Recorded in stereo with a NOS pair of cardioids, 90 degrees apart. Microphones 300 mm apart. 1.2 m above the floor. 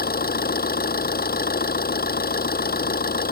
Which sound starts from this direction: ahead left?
An engine running, at 0.0 s.